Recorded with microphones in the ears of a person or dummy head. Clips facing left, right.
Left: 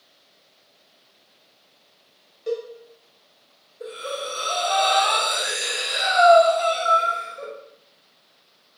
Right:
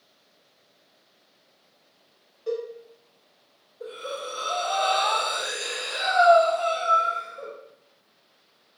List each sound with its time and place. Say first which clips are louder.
2.5 s a cowbell: left 2 dB; 25° left (ahead or behind), 0.7 m
3.8 s breathing: left 3 dB; 20° left (ahead or behind), 1.8 m